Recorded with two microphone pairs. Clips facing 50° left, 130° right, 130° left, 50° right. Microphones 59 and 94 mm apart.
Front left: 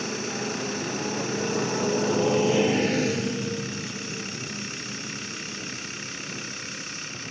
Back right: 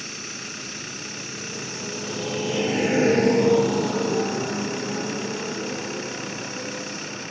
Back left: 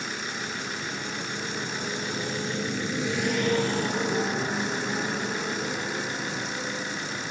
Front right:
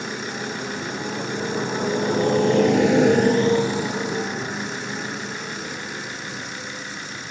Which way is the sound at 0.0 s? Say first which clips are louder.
Front left 7 dB, front right 5 dB; 5° left.